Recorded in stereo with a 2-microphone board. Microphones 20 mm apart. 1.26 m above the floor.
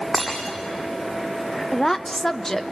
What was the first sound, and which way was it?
Breaking glass, 15° left (ahead or behind).